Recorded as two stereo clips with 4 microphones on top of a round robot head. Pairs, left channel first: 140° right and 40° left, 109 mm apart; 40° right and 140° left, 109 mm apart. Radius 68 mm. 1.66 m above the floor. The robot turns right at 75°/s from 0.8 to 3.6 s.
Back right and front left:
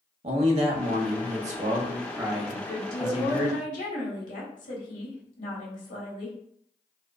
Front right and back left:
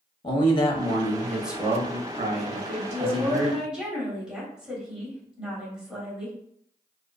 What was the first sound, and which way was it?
A man speaking, 10° left.